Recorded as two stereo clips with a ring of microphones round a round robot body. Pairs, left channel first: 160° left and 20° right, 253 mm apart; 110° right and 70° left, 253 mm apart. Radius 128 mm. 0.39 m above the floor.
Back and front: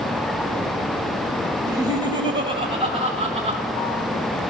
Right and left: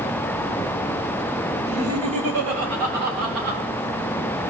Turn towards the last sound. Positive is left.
turn(degrees=45)